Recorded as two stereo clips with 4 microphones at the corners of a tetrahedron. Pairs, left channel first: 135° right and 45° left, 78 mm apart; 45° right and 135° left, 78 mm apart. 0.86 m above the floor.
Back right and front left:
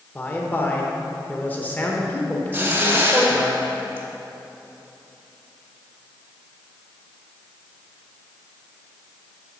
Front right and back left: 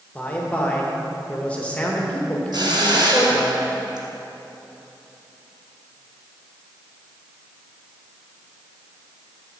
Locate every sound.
0.1 s a man speaking: 95° right, 0.9 m
2.5 s a hiss: 110° left, 1.0 m